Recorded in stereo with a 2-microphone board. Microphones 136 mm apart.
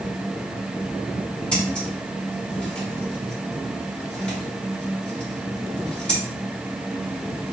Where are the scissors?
10° left (ahead or behind), 1.8 m.